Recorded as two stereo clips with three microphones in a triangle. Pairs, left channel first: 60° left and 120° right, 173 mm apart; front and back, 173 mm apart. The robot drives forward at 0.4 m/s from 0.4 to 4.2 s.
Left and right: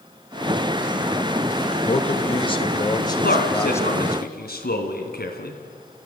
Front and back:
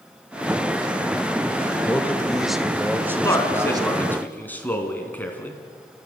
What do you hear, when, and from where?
1.9 s a man speaking: 70° left, 1.2 m; by 4.2 s 135° left, 1.4 m
3.2 s a man speaking: 70° left, 3 m; by 5.6 s 80° left, 3 m